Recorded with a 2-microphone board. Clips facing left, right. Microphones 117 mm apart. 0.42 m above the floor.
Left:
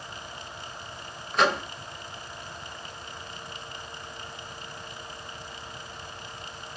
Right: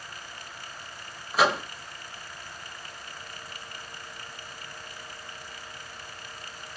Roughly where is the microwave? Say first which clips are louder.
Even; centre.